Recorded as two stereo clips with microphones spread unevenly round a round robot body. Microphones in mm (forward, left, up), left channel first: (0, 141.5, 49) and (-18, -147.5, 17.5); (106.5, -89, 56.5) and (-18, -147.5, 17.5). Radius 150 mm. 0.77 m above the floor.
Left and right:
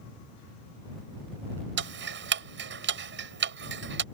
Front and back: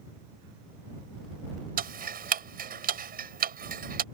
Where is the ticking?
145° right.